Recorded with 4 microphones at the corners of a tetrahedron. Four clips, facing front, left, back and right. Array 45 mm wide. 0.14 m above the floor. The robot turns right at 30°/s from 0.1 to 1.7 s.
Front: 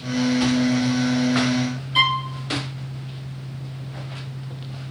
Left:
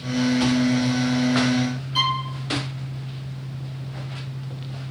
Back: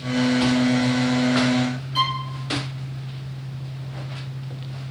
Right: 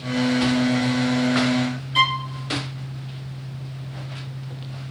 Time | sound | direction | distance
1.9 | a violin | 35° right | 0.5 m